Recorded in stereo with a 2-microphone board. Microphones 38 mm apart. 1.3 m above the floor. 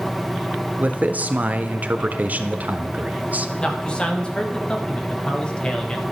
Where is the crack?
No crack in this recording.